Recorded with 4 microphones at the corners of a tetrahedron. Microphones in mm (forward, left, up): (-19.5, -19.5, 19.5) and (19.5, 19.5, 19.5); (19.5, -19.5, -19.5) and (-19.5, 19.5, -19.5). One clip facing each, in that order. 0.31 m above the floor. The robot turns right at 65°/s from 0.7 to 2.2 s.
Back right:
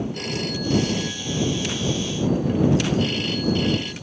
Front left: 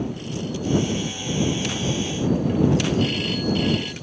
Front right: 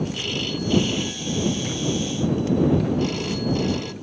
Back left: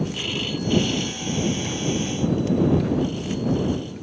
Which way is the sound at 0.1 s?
140° right.